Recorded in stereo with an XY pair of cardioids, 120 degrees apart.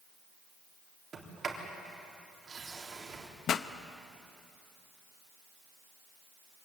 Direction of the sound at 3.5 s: 55° left.